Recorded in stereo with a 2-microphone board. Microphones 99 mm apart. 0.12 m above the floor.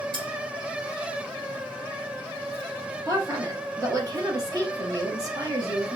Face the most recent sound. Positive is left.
turn(degrees=-35)  # may be behind; listen again after turning